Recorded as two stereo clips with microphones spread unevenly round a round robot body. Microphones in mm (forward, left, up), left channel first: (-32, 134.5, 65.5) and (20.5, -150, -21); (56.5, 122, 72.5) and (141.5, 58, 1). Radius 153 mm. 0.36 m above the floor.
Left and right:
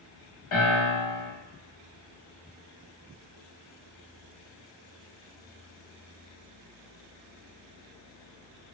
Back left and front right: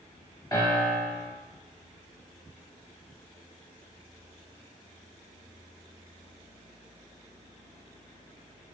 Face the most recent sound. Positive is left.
turn(degrees=70)